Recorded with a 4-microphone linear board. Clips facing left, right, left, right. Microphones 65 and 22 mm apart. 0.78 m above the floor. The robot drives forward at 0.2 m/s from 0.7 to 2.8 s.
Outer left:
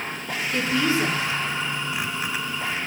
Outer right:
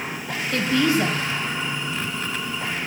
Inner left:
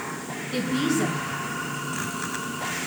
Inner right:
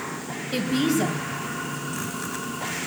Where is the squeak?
I don't hear a squeak.